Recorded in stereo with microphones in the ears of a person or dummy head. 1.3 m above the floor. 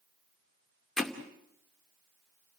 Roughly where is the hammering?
Centre.